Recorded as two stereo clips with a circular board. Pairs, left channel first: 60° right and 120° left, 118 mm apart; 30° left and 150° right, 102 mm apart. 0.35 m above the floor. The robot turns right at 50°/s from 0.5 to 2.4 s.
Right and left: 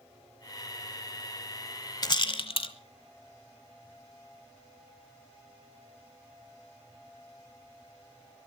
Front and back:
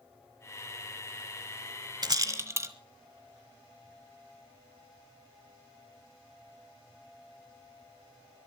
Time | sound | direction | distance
2.0 | a rattle | 110° right | 1.0 m